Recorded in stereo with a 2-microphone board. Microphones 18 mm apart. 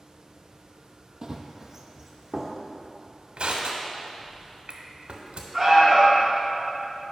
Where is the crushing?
70° right (ahead or behind), 0.8 m.